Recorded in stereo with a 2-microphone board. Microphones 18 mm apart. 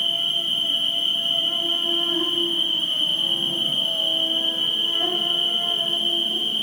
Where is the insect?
5° right (ahead or behind), 1.1 m.